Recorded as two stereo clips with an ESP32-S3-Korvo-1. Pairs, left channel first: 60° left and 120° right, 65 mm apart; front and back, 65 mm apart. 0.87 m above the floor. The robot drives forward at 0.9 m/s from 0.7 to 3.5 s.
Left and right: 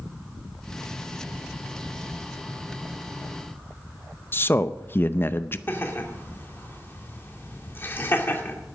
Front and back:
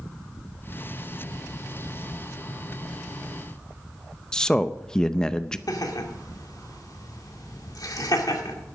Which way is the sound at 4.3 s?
70° left.